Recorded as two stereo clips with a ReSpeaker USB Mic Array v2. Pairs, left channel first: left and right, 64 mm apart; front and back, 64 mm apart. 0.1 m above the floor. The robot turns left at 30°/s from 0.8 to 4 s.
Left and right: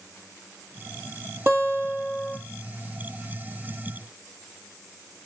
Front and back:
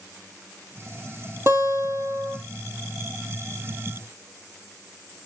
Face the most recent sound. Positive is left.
turn(degrees=145)